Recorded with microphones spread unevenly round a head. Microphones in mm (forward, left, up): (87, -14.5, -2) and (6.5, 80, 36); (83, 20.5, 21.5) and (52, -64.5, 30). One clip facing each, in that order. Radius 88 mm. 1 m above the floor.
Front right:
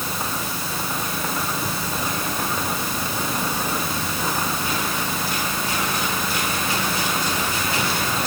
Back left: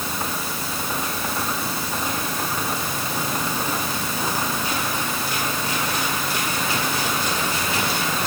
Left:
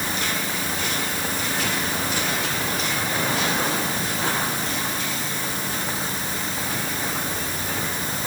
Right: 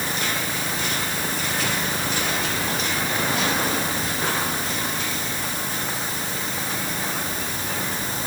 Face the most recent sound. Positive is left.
No sound to turn to.